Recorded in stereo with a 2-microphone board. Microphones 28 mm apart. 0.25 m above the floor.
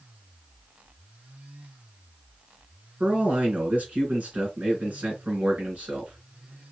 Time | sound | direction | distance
3.0 | a man speaking | 65° right (ahead or behind) | 3 m